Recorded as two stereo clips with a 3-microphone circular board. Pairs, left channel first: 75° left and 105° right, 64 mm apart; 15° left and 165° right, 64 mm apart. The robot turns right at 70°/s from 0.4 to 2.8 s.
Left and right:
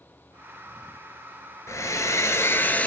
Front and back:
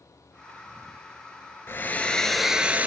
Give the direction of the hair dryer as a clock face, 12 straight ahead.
10 o'clock.